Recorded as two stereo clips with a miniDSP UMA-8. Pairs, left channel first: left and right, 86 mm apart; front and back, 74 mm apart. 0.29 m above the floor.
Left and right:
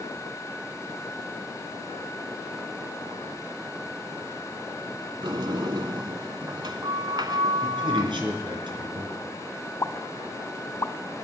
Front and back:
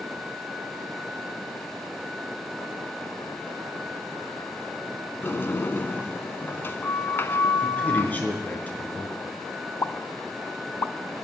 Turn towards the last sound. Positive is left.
turn(degrees=40)